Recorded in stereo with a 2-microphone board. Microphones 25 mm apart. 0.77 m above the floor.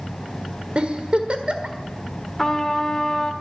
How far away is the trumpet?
About 1.0 m.